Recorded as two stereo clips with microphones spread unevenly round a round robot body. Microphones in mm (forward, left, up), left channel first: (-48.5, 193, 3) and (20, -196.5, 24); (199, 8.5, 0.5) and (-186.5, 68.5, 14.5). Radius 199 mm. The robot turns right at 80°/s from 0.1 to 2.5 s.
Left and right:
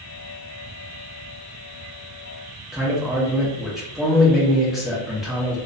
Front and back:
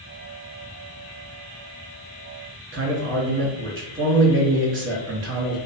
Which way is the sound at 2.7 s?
175° right.